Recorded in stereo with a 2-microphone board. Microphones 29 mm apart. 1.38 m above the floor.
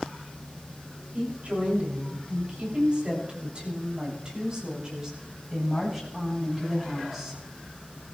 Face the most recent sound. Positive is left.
turn(degrees=-10)  # may be behind; listen again after turning